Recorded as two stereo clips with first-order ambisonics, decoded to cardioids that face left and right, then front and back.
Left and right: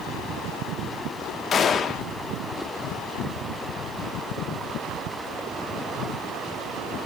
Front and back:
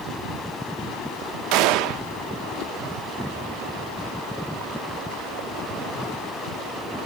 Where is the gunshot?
155° left, 0.9 m.